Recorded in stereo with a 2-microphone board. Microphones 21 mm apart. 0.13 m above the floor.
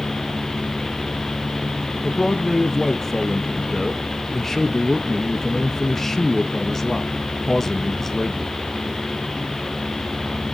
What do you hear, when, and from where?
2.0 s a man speaking: 15° left (ahead or behind), 1.0 m